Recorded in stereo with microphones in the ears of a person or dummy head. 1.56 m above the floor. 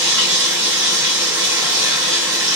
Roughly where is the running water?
Centre.